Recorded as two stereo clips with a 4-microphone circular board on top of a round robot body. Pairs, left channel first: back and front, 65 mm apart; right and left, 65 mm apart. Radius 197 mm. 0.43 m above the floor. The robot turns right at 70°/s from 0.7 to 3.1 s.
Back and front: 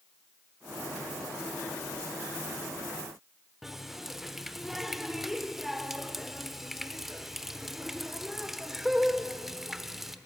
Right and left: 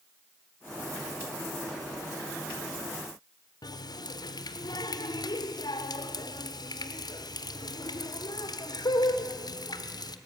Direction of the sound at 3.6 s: 85° right.